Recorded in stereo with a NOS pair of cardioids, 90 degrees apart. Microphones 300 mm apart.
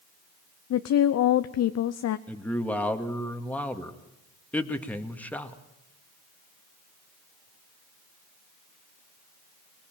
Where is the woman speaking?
60° left, 0.9 m.